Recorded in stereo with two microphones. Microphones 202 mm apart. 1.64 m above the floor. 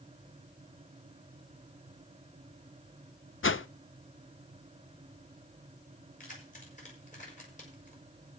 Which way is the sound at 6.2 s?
40° left (ahead or behind).